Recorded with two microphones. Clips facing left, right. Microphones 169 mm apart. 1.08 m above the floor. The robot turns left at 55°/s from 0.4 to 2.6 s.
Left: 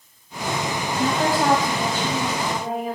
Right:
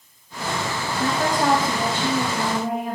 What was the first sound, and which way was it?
A woman speaking, 25° left.